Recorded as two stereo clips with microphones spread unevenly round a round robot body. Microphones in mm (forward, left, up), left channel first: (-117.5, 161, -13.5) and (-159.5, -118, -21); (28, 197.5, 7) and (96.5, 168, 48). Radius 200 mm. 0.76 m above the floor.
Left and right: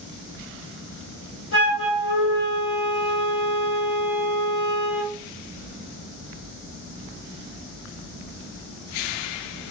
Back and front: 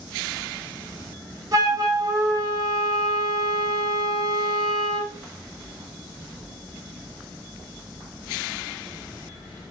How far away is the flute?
About 2 m.